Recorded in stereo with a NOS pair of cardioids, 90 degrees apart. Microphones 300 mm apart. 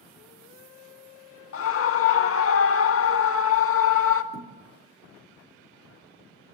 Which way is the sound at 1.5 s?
45° left.